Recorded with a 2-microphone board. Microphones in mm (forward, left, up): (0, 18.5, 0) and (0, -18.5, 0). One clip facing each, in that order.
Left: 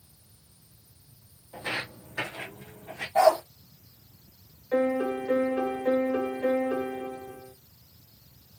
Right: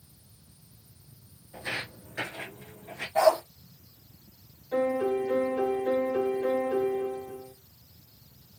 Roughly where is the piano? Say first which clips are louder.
Left 1 dB; left.